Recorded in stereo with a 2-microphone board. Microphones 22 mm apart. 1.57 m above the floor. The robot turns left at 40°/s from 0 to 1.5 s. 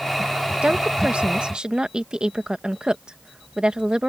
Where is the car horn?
I don't hear a car horn.